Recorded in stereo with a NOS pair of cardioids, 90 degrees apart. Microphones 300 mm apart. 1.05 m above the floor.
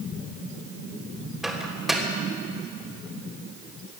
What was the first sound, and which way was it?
A microwave, straight ahead.